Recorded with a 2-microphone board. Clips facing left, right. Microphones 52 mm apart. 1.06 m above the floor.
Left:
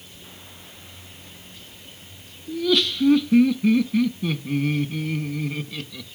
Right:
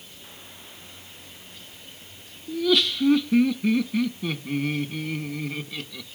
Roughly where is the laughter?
Centre.